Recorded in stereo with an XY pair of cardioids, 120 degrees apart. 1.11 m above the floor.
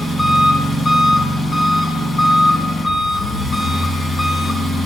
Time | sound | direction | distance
0.0 | an engine running | 35° left | 2.5 m